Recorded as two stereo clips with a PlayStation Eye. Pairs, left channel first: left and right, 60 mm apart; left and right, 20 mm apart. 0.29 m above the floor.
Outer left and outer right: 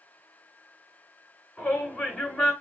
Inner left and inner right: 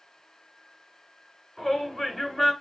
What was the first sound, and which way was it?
A shout, 20° left (ahead or behind).